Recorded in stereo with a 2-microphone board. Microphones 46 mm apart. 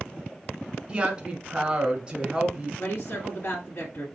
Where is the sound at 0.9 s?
20° right (ahead or behind), 1.1 m.